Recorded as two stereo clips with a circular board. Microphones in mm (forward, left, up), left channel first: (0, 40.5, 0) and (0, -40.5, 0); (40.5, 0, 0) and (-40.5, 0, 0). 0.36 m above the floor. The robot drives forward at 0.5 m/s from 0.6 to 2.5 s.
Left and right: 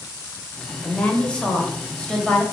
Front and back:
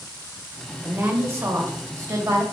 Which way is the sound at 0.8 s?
150° left.